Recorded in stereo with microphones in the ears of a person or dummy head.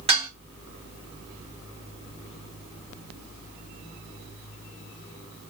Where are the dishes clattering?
30° right (ahead or behind), 1.7 m.